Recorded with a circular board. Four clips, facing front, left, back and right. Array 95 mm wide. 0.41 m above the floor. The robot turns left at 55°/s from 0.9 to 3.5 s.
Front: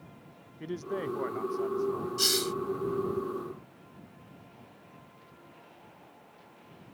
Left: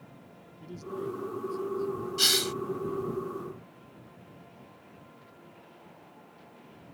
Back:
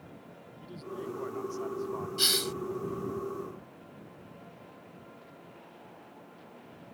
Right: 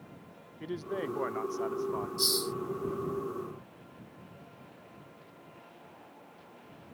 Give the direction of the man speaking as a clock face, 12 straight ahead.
1 o'clock.